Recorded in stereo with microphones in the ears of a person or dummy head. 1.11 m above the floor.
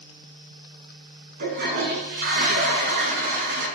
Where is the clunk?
No clunk in this recording.